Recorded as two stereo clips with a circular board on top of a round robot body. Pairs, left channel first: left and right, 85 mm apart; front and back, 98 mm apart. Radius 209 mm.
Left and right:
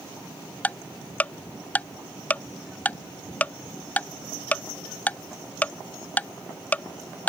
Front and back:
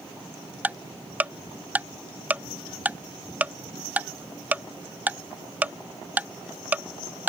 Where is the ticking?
130° left.